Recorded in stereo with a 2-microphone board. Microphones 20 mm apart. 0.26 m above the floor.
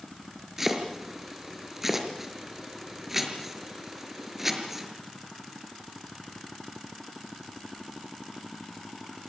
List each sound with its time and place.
0.6 s chopping: 10° right (ahead or behind), 5 m